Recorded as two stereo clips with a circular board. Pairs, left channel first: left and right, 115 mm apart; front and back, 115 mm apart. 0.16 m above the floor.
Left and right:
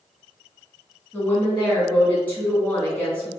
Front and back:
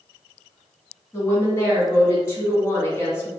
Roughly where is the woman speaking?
Ahead left.